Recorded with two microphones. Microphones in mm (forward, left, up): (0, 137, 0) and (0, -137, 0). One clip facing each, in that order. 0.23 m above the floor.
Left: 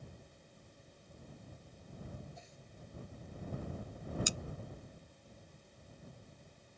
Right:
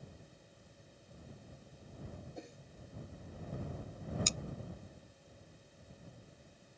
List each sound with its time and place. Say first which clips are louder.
2.4 s a whoosh: right 9 dB; 60° right (ahead or behind)
4.3 s cutlery clinking: left 1 dB; 10° left (ahead or behind)